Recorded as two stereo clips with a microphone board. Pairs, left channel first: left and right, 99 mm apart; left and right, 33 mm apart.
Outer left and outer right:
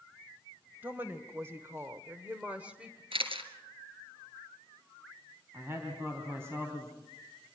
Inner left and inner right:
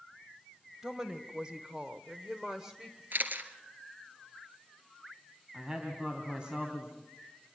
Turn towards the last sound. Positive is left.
turn(degrees=-30)  # may be behind; listen again after turning